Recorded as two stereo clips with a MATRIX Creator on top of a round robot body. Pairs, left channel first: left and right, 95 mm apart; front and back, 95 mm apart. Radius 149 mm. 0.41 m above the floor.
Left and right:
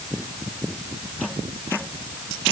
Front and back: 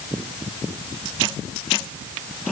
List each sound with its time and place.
Only background noise.